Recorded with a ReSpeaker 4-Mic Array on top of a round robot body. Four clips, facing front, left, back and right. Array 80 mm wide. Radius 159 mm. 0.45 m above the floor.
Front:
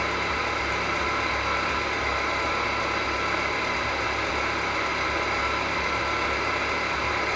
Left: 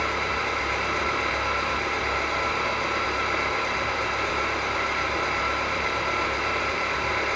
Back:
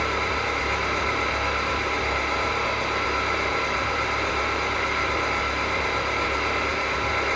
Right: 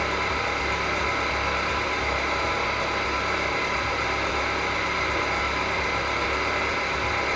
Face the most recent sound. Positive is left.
turn(degrees=130)